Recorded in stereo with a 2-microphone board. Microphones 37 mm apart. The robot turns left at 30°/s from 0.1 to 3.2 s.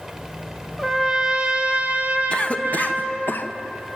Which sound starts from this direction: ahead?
A trumpet, at 0.8 s.